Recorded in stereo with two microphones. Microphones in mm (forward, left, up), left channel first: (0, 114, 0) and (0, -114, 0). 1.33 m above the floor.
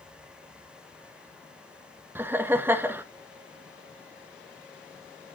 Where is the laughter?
10° right (ahead or behind), 0.8 m.